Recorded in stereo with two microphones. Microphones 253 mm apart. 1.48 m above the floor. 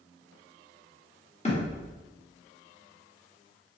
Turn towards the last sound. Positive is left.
turn(degrees=25)  # may be behind; listen again after turning